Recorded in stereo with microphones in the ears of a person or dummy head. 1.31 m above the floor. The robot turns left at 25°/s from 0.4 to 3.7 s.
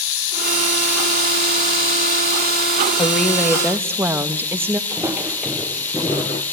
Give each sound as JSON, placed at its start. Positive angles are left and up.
{"t": 0.0, "sound": "running water", "azimuth_deg": 95, "distance_m": 4.0}
{"t": 3.0, "sound": "a woman speaking", "side_deg": 5, "distance_m": 1.3}
{"t": 4.9, "sound": "footsteps", "side_deg": -10, "distance_m": 1.6}